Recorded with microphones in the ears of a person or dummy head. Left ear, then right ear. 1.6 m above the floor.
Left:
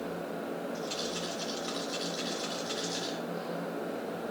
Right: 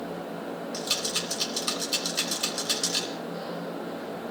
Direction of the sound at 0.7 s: 75° right (ahead or behind).